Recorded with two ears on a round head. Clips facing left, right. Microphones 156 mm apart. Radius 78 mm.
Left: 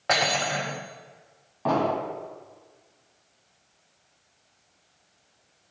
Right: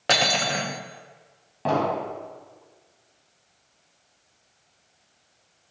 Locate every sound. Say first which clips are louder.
0.1 s cutlery clinking: right 1 dB; 40° right (ahead or behind), 0.8 m
1.6 s an explosion: even; 35° right (ahead or behind), 1.9 m